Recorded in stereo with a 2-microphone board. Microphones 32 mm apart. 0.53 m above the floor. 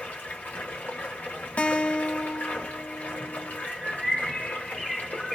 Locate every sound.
0.0 s running water: 65° left (ahead or behind), 1.3 m
1.6 s a guitar: 50° left (ahead or behind), 0.5 m
3.6 s a bird: centre (ahead or behind), 1.5 m